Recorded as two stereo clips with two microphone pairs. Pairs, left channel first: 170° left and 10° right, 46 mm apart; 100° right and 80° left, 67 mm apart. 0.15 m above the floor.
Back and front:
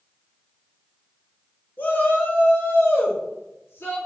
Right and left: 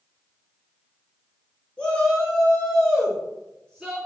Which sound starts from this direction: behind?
A shout, at 1.8 s.